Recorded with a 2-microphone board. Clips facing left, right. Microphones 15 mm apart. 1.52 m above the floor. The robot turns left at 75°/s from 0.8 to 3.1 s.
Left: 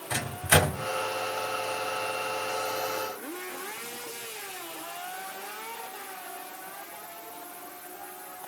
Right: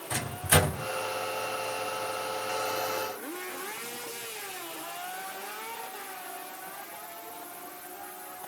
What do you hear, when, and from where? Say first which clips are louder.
0.1 s a microwave: left 2 dB; 65° left (ahead or behind), 4 m; by 0.9 s 70° left (ahead or behind), 4 m